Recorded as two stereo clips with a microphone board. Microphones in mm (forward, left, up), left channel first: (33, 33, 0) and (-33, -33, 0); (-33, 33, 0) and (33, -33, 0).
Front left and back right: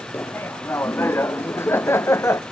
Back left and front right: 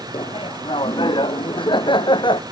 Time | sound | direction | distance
0.1 | laughter | 110° left | ?